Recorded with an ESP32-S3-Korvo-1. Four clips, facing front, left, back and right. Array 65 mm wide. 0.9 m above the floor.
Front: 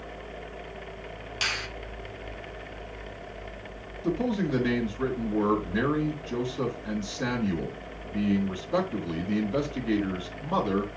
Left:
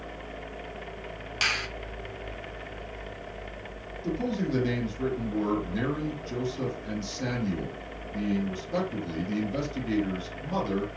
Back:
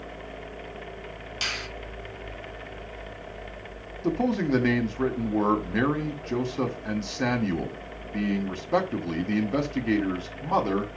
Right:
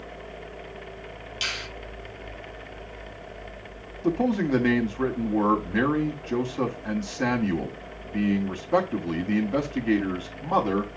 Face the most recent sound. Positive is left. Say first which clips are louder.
# right 6 dB, back 2 dB
turn(degrees=-135)